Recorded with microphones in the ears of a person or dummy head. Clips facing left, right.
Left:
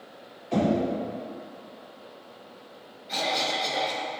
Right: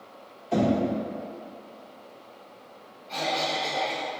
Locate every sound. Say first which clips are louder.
0.5 s knocking: right 1 dB; 5° left (ahead or behind), 1.8 m
3.1 s a cough: right 1 dB; 25° left (ahead or behind), 0.7 m